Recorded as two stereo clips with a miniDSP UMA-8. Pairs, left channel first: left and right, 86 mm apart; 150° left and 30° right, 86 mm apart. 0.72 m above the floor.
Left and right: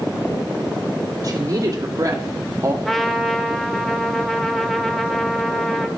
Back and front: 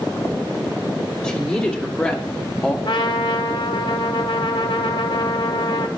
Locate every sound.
1.2 s a woman speaking: 135° right, 1.7 m; by 2.8 s 130° right, 0.8 m
2.9 s a trumpet: straight behind, 0.8 m